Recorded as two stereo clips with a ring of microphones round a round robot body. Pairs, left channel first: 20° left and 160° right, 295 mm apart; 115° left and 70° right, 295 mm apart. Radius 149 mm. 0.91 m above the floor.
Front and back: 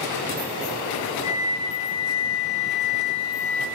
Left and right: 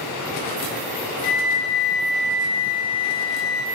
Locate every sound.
1.2 s a flute: 90° left, 1.0 m